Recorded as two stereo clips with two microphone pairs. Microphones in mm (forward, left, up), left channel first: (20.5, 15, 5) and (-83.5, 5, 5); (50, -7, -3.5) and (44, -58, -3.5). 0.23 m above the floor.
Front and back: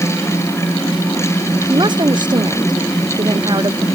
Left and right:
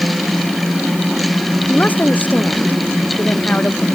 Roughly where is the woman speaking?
Behind left.